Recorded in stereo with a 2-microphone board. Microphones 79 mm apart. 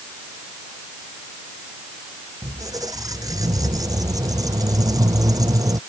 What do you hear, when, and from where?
2.4 s a squeak: 50° right (ahead or behind)